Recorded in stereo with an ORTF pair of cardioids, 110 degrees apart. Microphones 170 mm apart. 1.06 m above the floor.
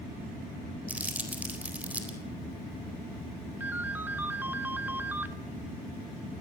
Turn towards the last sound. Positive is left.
turn(degrees=-10)